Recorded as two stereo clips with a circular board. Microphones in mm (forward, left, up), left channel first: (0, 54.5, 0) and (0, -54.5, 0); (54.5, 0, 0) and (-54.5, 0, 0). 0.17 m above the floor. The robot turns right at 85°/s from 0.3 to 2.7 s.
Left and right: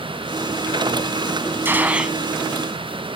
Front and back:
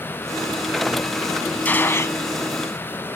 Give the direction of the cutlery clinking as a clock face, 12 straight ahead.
No cutlery clinking in this recording.